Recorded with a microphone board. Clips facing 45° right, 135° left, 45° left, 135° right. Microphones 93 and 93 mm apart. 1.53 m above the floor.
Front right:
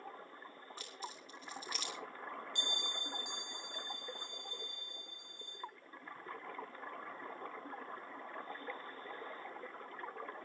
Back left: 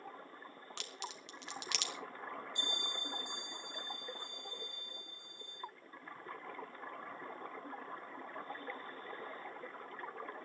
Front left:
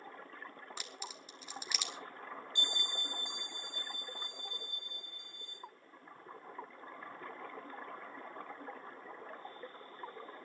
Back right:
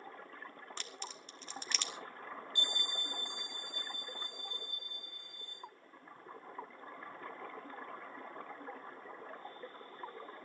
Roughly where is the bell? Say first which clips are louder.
Even, front left 1 dB; ahead.